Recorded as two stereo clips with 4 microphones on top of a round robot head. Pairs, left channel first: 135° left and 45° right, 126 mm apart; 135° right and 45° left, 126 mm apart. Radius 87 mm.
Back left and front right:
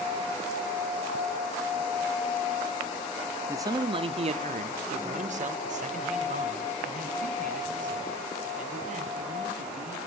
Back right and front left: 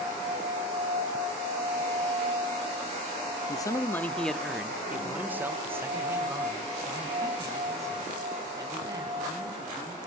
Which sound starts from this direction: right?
A man speaking, at 3.5 s.